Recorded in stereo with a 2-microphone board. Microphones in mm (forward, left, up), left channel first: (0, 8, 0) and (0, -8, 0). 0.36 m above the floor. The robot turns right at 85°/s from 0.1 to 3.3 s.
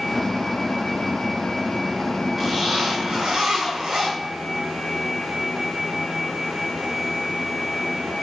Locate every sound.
2.4 s a zipper: 155° right, 4.5 m; by 4.1 s 80° right, 4.5 m